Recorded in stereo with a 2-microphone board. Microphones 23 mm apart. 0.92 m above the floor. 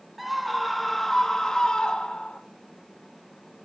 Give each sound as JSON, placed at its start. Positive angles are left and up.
{"t": 0.2, "sound": "a scream", "side_deg": -5, "distance_m": 1.9}